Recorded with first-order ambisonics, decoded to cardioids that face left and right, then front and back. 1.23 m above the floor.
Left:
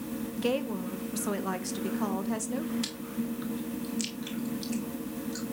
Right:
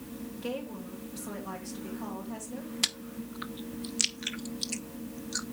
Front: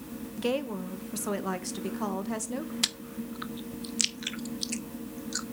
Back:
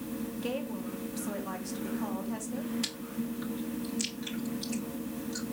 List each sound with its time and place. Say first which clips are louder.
0.4 s a woman speaking: left 7 dB, front 7 dB; 35° left, 1.0 m
2.8 s chewing: right 3 dB, front 5 dB; 40° right, 0.6 m